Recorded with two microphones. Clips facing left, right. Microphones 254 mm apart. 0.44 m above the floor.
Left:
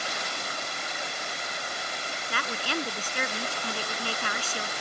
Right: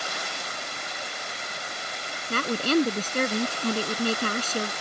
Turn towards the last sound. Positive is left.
turn(degrees=-45)  # may be behind; listen again after turning